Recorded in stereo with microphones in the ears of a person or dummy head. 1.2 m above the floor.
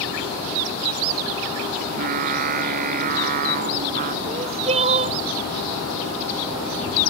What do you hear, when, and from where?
1.8 s singing: 50° right (ahead or behind)
4.2 s crying: 35° right (ahead or behind)